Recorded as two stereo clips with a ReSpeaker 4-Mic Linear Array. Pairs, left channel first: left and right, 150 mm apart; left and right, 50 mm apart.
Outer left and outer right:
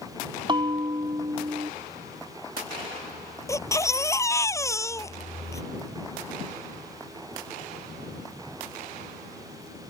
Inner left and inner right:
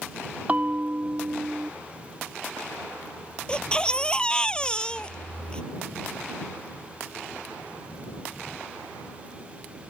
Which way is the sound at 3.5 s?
20° left (ahead or behind).